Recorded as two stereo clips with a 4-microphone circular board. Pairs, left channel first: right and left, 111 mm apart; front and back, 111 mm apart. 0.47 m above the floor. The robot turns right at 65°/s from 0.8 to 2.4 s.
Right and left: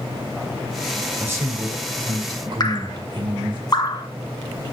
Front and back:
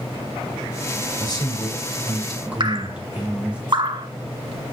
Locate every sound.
1.2 s a man speaking: 25° left, 1.8 m; by 3.6 s 105° left, 1.8 m
2.6 s dripping: 140° right, 0.7 m